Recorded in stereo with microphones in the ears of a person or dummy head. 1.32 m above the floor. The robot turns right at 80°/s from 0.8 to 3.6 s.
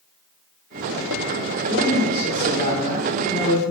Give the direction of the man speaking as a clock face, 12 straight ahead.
6 o'clock.